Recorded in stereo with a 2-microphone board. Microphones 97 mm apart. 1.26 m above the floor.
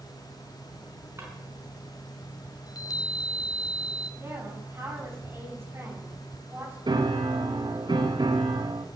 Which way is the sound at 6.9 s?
55° right (ahead or behind).